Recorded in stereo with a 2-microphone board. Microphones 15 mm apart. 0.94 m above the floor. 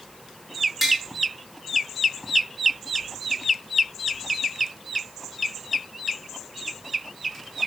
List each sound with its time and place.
0.8 s tapping: 20° right (ahead or behind), 5.5 m